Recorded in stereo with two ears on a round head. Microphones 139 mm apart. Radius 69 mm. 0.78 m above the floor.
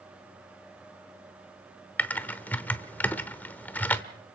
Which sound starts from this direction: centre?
Typing on a keyboard, at 2.0 s.